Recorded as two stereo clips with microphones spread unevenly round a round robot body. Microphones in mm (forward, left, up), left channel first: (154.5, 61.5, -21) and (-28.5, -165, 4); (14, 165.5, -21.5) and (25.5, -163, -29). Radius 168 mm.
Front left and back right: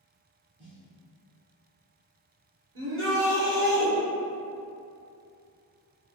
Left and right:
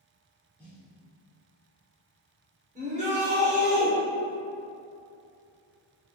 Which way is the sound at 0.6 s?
175° left.